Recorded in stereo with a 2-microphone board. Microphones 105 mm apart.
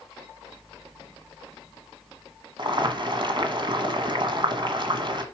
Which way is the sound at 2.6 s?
50° right (ahead or behind).